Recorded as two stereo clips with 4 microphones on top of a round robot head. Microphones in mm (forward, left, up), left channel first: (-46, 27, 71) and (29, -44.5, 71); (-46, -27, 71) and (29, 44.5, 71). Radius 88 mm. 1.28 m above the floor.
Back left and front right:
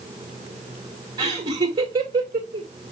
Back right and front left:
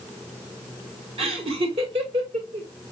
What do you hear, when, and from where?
1.2 s laughter: 10° left, 1.9 m